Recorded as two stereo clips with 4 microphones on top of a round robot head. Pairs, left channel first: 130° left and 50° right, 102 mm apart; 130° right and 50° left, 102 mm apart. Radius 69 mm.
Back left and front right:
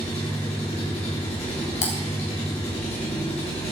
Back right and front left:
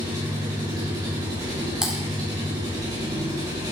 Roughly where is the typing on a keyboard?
Behind left.